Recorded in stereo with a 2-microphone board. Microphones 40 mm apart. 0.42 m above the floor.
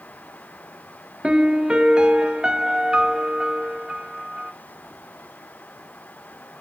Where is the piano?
25° right (ahead or behind), 1.5 m.